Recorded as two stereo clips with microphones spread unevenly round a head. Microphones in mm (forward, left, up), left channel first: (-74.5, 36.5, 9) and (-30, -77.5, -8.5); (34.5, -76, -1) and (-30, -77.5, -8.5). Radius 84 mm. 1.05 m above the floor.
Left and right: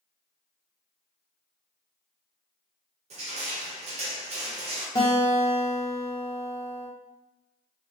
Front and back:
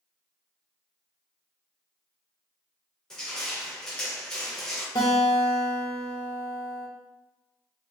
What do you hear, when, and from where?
3.1 s crushing: 85° right, 0.9 m
5.0 s a guitar: 45° left, 0.7 m